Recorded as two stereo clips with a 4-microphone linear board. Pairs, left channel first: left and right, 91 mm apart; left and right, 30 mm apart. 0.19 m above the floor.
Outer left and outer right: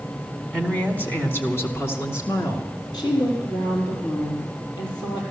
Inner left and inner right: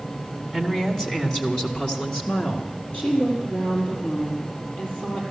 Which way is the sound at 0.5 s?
15° left (ahead or behind).